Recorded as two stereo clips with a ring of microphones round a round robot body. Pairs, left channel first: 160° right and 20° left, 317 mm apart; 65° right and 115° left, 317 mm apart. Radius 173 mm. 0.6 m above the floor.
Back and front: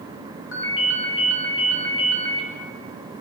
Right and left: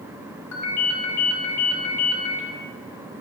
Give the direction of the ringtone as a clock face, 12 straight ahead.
4 o'clock.